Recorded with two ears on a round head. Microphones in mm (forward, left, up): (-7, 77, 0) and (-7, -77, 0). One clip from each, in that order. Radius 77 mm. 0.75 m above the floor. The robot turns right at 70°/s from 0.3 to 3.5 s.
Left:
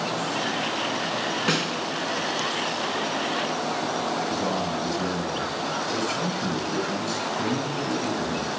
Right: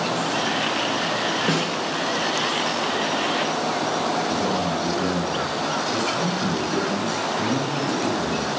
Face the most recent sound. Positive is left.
turn(degrees=30)  # may be behind; listen again after turning